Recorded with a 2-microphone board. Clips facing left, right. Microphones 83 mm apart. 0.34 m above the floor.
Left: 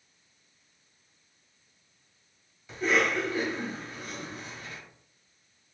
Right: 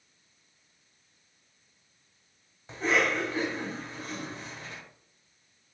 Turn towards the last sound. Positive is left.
turn(degrees=-30)  # may be behind; listen again after turning